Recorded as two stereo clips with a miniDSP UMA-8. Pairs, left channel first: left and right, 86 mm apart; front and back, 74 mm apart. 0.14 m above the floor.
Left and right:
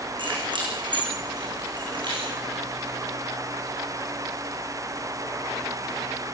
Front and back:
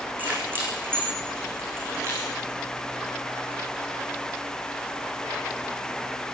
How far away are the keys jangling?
About 7.5 m.